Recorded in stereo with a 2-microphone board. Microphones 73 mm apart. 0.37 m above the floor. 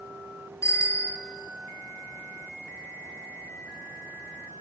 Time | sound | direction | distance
0.6 | a bicycle bell | 40° left (ahead or behind) | 3.5 m